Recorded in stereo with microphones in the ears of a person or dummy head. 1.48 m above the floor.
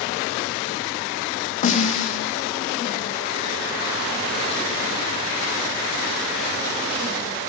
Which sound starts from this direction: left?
A snare drum, at 1.6 s.